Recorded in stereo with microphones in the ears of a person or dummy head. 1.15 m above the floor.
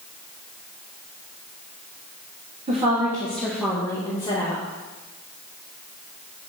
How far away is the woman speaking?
About 1.1 m.